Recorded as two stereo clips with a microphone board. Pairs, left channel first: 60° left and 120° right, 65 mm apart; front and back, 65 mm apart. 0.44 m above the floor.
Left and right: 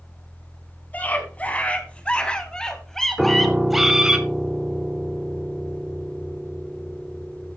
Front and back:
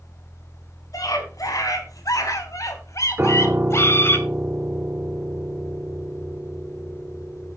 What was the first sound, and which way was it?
A scream, straight ahead.